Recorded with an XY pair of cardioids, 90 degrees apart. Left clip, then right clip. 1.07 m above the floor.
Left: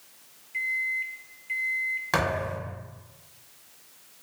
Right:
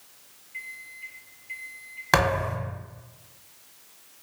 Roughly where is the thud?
Ahead right.